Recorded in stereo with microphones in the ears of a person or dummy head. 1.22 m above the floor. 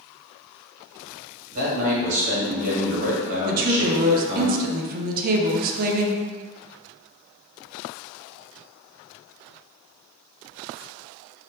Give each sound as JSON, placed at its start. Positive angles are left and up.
{"t": 1.5, "sound": "a man speaking", "side_deg": -40, "distance_m": 1.6}
{"t": 3.5, "sound": "a woman speaking", "side_deg": -40, "distance_m": 0.6}